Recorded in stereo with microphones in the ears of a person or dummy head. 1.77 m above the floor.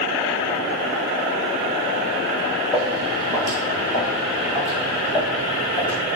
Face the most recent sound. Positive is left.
turn(degrees=20)  # may be behind; listen again after turning